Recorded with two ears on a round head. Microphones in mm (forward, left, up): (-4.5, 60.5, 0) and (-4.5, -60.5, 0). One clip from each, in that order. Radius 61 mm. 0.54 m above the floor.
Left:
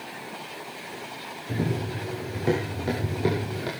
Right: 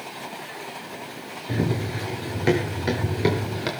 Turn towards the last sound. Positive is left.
turn(degrees=-50)  # may be behind; listen again after turning